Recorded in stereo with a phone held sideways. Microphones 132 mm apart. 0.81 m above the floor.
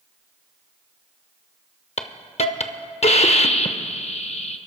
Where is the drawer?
No drawer in this recording.